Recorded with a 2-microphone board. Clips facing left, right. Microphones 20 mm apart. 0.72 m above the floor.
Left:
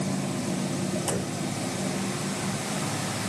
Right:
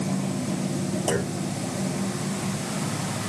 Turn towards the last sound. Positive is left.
turn(degrees=-45)  # may be behind; listen again after turning